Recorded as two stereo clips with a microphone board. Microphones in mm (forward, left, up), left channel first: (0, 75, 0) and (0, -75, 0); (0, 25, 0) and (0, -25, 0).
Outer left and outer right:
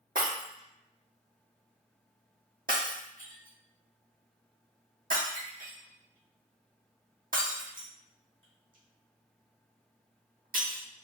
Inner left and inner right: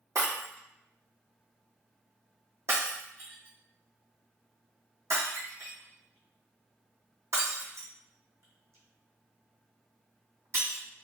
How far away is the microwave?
No microwave in this recording.